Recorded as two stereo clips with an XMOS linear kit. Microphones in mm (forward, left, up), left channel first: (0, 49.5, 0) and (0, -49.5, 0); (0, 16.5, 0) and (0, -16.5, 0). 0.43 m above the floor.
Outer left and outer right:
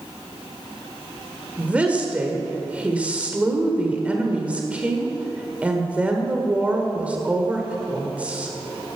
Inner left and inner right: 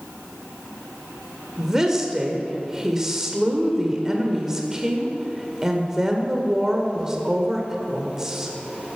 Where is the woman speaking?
15° right (ahead or behind), 1.5 m.